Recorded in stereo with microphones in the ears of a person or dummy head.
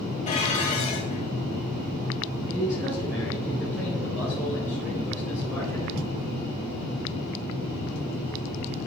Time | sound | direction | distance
0.3 | dishes clattering | 35° left (ahead or behind) | 1.3 m
2.5 | a man speaking | 5° right (ahead or behind) | 4.5 m